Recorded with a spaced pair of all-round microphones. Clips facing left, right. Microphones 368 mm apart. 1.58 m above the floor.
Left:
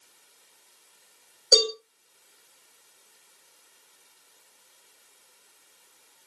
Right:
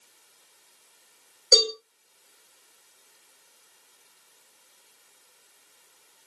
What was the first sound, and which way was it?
A cowbell, 5° right (ahead or behind).